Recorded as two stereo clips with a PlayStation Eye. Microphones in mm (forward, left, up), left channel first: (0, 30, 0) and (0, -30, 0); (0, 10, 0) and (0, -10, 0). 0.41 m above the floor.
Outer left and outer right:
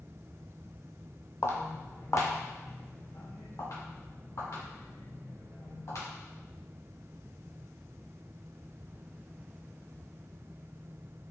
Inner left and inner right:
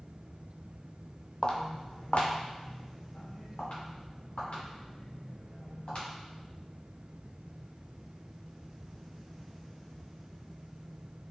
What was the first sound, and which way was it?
Footsteps, 50° left (ahead or behind).